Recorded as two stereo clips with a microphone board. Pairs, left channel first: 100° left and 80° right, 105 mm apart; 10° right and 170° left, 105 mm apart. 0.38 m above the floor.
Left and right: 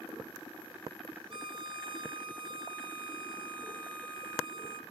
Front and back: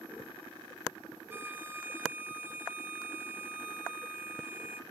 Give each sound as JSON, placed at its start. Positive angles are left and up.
{"t": 1.3, "sound": "a violin", "azimuth_deg": -115, "distance_m": 0.7}